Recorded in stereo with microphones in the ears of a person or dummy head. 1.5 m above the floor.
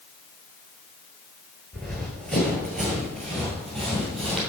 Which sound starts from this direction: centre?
Running footsteps, at 1.7 s.